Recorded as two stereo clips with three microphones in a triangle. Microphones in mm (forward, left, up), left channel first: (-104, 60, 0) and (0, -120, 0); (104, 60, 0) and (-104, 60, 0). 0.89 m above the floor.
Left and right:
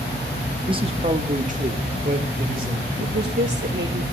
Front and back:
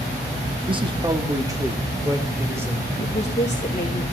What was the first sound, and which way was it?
A man speaking, 125° right.